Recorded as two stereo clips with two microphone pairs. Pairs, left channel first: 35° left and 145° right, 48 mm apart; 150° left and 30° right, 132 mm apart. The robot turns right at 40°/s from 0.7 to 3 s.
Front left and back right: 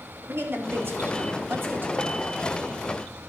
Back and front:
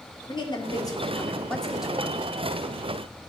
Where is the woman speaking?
165° right, 1.8 m; by 2.2 s 105° right, 1.8 m.